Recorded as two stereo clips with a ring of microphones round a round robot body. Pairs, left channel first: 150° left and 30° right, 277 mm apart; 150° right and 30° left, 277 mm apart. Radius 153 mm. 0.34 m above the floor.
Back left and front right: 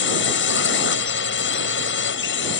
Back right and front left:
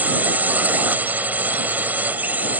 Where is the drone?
115° left.